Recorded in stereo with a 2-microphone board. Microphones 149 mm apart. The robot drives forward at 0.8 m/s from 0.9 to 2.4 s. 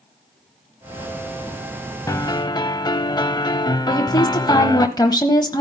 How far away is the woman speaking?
About 1.1 m.